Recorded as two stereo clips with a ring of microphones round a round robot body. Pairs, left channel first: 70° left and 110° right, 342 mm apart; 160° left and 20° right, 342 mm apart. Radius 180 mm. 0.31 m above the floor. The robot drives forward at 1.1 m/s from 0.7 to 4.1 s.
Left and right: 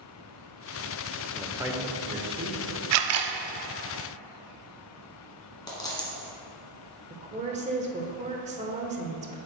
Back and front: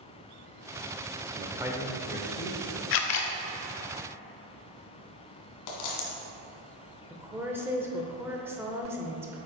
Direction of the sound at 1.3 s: 20° right.